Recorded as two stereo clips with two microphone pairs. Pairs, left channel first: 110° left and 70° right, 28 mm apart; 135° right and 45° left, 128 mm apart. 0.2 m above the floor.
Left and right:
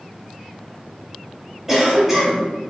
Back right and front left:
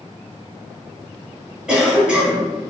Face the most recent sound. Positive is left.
turn(degrees=-25)